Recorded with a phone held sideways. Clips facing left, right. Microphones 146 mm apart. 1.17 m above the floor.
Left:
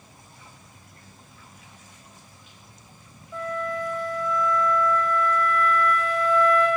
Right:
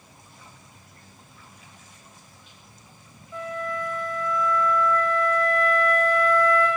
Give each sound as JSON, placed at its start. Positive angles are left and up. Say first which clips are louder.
{"t": 3.3, "sound": "a flute", "louder": "left 2 dB", "side_deg": 5, "distance_m": 1.3}